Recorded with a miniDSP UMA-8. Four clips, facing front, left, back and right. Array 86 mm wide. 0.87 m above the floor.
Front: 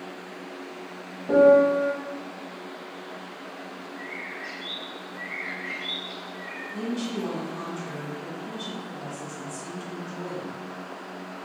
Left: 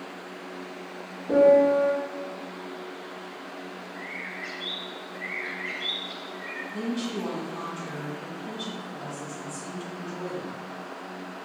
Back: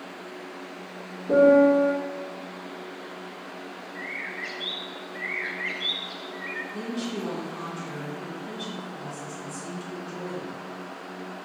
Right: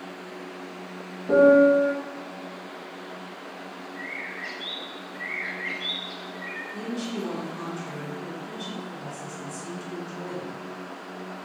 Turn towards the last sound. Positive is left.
turn(degrees=55)